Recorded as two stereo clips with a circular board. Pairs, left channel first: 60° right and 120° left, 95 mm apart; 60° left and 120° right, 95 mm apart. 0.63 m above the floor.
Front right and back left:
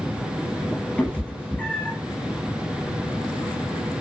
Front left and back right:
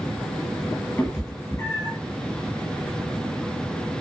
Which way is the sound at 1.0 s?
10° left.